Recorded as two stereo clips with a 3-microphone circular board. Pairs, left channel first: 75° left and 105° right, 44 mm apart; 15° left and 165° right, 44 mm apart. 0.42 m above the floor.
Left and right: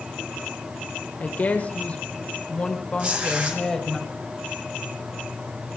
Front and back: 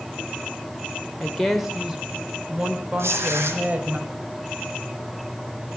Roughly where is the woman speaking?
Left.